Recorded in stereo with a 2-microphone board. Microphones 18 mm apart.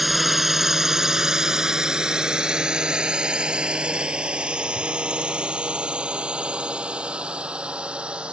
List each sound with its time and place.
0.0 s a drone: 5° right (ahead or behind); by 8.3 s 85° right